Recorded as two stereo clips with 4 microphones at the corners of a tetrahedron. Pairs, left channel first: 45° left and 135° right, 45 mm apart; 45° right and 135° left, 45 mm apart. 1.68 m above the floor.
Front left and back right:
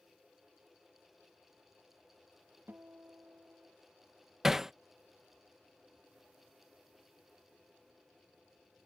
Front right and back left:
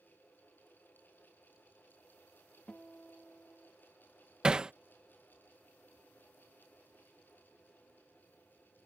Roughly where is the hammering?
Behind.